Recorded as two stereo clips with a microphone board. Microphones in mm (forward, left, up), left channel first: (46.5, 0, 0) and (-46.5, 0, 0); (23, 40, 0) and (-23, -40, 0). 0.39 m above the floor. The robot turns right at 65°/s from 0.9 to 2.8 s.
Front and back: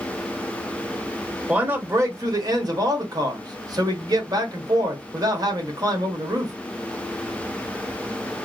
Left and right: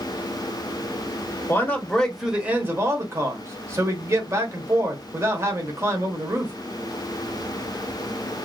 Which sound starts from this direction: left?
A man speaking, at 1.5 s.